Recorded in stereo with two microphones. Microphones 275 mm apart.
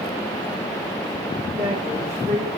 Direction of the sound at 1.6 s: 35° right (ahead or behind).